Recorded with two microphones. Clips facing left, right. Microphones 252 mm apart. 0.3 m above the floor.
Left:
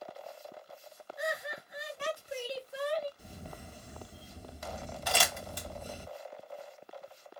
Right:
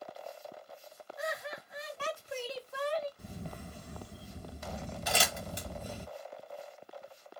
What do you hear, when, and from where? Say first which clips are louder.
1.2 s laughter: left 2 dB; 15° left (ahead or behind), 1.1 m
3.2 s a camera shutter: right 3 dB; 65° right (ahead or behind), 1.3 m
5.1 s crumpling: left 1 dB; 25° right (ahead or behind), 1.5 m